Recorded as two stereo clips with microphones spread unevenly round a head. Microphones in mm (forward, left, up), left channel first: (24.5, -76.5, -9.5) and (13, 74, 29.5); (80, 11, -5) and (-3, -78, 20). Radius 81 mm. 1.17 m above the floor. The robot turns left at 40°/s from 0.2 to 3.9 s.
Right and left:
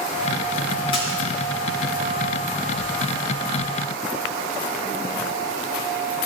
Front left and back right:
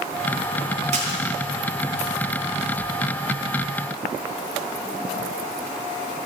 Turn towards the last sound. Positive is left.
turn(degrees=95)